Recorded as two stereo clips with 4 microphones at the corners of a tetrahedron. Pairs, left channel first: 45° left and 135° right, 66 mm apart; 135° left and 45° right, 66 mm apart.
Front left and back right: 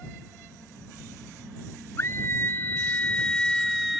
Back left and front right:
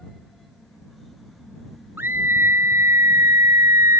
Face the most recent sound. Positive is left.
turn(degrees=-50)